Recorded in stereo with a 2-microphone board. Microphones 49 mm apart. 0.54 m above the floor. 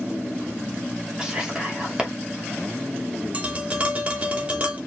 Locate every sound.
1.2 s whispering: 15° right (ahead or behind), 0.9 m
3.3 s tapping: 25° right (ahead or behind), 0.8 m